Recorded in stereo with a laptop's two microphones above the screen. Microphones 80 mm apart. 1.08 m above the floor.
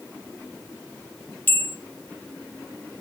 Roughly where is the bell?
Left.